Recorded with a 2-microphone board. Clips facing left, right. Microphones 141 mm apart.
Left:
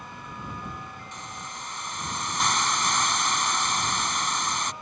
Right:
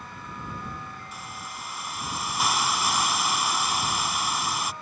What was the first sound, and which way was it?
A hiss, 5° right (ahead or behind).